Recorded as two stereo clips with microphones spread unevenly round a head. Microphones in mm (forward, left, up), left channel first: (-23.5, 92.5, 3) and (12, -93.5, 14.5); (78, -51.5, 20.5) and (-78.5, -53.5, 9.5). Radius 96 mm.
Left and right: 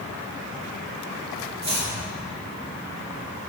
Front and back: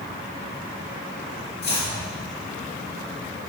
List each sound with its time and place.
1.6 s chopping: 15° right, 2.5 m